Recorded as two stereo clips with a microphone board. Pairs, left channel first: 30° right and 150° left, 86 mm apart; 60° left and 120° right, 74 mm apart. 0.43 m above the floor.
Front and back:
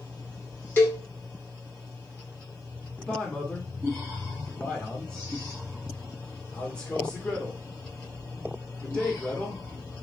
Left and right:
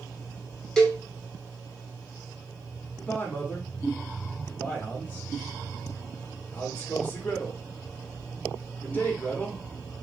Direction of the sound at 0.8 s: 10° right.